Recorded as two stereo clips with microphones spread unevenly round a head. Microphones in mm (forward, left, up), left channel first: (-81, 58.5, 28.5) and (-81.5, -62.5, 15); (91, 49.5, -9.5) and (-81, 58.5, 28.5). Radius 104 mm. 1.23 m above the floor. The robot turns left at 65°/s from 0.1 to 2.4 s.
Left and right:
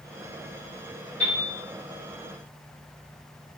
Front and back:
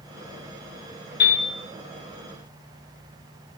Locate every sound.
1.2 s a piano: 10° left, 1.4 m; by 1.5 s 10° right, 1.4 m